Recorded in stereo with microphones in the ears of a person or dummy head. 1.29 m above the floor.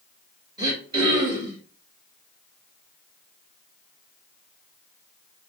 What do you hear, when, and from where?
0.6 s throat clearing: 30° right (ahead or behind), 5 m